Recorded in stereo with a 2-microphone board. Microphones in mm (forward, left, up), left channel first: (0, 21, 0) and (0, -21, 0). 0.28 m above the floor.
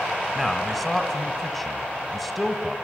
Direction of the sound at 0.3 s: 5° left (ahead or behind).